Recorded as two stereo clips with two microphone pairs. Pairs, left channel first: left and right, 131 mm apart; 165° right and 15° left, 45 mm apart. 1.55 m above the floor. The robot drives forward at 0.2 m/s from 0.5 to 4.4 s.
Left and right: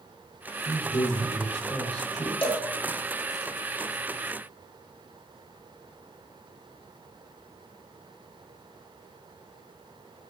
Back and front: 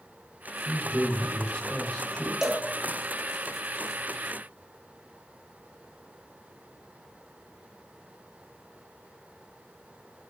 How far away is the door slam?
No door slam in this recording.